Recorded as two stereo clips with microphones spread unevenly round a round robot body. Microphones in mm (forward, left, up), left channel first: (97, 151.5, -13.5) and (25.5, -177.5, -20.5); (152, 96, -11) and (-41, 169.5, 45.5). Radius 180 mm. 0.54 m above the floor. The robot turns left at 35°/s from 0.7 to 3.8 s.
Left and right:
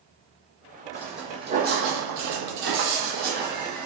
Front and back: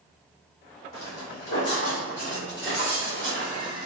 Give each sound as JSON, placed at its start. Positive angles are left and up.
{"t": 0.9, "sound": "footsteps", "azimuth_deg": 0, "distance_m": 1.2}